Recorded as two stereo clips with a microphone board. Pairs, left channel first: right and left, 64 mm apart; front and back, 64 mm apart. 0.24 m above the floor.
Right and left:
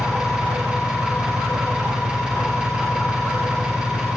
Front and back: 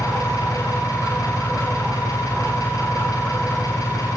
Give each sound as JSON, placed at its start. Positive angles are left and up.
{"t": 0.0, "sound": "an engine running", "azimuth_deg": 15, "distance_m": 9.0}